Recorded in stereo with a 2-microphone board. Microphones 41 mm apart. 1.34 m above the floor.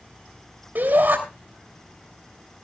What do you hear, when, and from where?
0.8 s a shout: 55° right (ahead or behind), 3 m